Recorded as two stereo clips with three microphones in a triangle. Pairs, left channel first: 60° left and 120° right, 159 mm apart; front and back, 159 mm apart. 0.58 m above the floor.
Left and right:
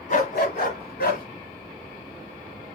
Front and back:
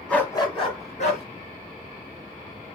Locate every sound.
0.1 s a dog barking: 85° left, 1.2 m; by 1.2 s 40° left, 2.5 m